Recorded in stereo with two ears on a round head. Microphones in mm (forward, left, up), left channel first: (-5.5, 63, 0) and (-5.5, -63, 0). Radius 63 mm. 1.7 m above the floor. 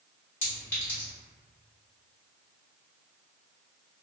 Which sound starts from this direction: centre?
A clink, at 0.4 s.